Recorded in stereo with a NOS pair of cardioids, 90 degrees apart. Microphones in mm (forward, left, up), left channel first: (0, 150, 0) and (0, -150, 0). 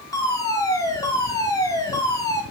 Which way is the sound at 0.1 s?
10° left.